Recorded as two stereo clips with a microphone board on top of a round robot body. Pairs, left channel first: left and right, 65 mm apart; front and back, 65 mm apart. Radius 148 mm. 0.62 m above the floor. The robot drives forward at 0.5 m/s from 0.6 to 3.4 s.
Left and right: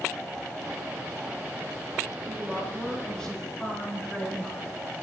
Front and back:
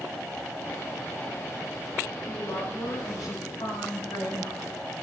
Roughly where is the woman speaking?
Ahead.